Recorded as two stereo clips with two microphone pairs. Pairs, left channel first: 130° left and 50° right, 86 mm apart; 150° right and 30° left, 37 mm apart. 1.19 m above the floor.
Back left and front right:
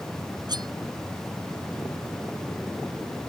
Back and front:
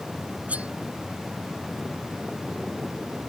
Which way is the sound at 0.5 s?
15° right.